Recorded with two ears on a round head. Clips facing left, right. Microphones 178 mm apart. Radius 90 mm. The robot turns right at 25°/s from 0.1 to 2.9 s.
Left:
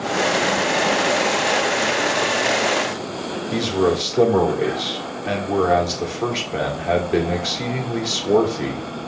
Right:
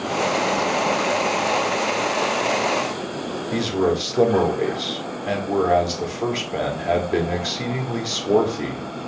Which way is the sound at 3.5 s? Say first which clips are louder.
Left 2 dB; centre (ahead or behind).